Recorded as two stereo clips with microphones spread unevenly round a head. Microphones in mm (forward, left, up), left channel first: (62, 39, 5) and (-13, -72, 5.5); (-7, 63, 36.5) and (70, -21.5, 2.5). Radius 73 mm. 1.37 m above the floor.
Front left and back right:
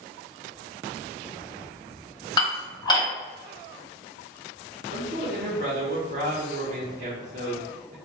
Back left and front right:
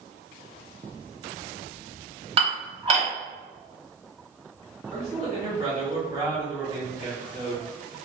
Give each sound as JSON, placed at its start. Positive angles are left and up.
{"t": 2.4, "sound": "dishes clattering", "azimuth_deg": -5, "distance_m": 1.7}
{"t": 4.9, "sound": "a man speaking", "azimuth_deg": -100, "distance_m": 1.1}